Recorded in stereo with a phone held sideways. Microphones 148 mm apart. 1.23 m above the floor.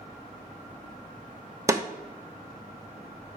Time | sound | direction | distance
1.7 | a snare drum | 20° right (ahead or behind) | 0.7 m